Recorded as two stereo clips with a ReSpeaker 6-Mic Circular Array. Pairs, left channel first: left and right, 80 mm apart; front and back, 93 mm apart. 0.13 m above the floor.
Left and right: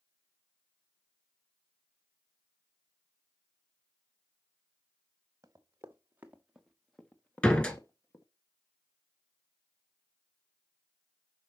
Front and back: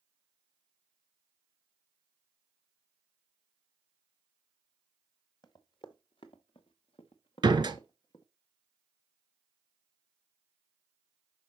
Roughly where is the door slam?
Behind.